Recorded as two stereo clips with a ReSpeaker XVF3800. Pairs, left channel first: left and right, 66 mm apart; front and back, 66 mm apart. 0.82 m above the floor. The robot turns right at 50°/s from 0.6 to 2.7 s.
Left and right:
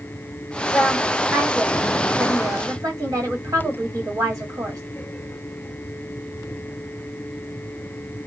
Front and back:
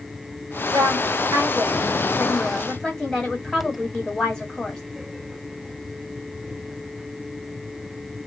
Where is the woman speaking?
175° left, 1.5 m; by 4.8 s 85° right, 1.5 m.